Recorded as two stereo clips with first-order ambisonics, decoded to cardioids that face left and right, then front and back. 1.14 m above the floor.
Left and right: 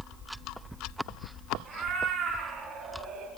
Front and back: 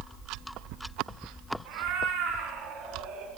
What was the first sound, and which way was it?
A cat meowing, 170° right.